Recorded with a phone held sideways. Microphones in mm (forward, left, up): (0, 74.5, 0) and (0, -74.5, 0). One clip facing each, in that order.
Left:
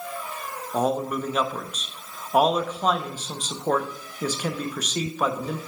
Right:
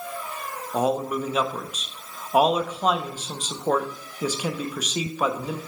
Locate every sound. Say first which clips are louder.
0.7 s a man speaking: right 1 dB; 10° right (ahead or behind), 0.6 m